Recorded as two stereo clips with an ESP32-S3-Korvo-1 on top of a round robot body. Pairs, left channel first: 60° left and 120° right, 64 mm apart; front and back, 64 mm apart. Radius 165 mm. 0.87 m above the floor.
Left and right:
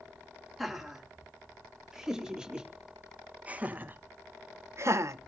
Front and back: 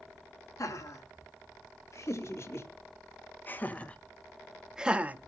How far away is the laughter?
About 3.5 m.